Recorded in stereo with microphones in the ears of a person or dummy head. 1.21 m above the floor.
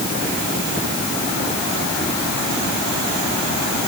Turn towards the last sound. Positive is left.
No sound to turn to.